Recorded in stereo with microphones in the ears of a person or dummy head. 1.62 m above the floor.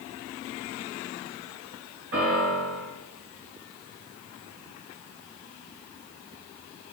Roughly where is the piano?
Right.